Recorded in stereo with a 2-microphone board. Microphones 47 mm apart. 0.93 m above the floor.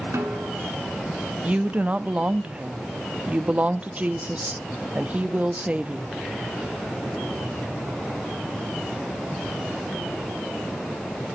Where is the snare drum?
75° right (ahead or behind), 2.5 m.